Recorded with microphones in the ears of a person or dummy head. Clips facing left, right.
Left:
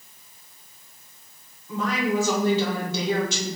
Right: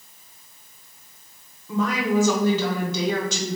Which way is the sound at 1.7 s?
80° right.